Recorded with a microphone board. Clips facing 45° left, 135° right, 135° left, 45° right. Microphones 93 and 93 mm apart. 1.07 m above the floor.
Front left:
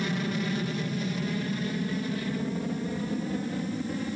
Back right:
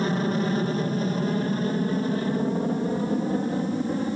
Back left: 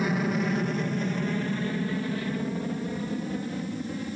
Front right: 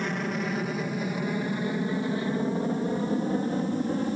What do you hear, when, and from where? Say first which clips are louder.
0.0 s an aircraft: back right 6 dB, back left 3 dB; 140° right; by 4.2 s 85° right